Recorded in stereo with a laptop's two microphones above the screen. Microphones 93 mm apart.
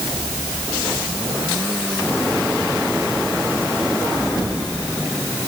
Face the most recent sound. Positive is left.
No sound to turn to.